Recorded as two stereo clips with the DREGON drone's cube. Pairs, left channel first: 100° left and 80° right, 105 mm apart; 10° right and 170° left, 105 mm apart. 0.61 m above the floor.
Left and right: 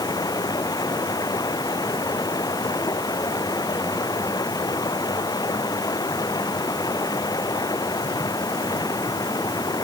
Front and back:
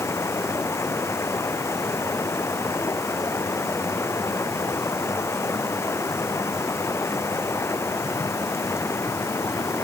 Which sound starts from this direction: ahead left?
Running water, at 0.0 s.